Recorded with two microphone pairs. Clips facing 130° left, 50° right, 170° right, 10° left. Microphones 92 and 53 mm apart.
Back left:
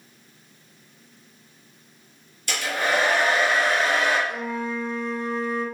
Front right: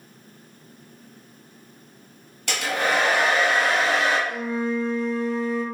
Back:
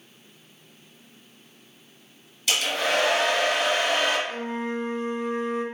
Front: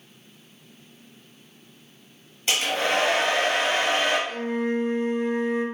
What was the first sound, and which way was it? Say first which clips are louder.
A hair dryer: front right 1 dB, front 1 dB; 45° right.